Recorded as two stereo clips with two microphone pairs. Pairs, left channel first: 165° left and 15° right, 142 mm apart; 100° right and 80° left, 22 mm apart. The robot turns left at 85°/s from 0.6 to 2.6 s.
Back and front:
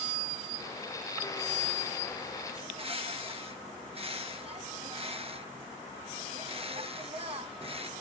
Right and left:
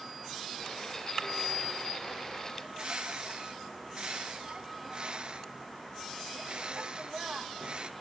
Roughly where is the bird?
Ahead left.